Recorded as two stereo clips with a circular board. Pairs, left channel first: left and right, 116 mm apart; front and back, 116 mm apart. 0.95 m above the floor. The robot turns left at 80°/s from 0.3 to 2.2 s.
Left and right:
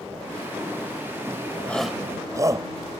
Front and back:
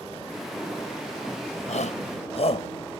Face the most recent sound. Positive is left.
turn(degrees=-30)